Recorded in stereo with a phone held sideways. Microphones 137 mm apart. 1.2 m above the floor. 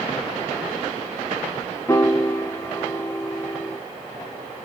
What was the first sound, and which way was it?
A piano, 20° left (ahead or behind).